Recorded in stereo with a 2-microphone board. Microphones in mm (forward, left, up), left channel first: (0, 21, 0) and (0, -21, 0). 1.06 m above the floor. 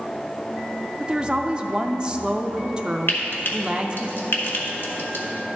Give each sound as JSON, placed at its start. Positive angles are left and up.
{"t": 1.0, "sound": "a woman speaking", "side_deg": -25, "distance_m": 0.5}
{"t": 3.1, "sound": "frying", "side_deg": 60, "distance_m": 1.2}